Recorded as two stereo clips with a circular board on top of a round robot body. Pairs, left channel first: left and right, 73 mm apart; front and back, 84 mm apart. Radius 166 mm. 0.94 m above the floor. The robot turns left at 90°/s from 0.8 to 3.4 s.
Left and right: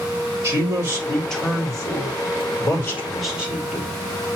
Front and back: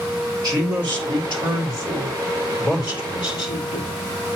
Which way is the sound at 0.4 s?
140° right.